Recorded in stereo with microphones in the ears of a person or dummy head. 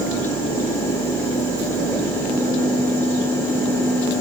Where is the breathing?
I don't hear breathing.